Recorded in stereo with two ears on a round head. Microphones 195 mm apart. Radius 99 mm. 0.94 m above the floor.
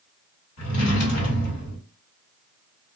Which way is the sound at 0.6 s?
65° left (ahead or behind).